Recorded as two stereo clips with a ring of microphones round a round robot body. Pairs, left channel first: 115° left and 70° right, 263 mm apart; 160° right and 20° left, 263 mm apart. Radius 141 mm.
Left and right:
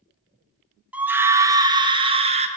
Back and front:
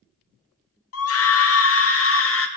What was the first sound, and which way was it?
A scream, 150° right.